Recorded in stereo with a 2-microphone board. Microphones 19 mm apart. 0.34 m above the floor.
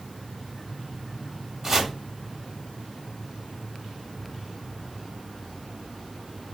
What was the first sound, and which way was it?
Chopping, 25° right (ahead or behind).